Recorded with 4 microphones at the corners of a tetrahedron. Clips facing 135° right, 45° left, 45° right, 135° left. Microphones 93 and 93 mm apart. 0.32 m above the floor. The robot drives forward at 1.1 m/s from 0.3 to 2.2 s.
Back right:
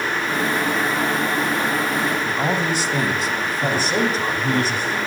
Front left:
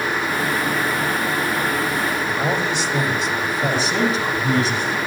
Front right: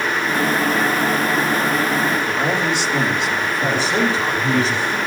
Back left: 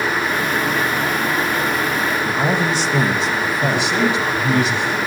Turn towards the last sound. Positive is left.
turn(degrees=-100)